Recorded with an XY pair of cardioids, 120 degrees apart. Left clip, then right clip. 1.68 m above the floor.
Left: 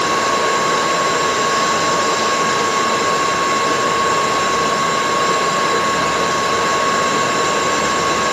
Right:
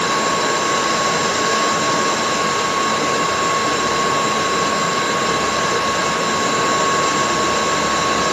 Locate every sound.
0.0 s a fan: 20° left, 3.5 m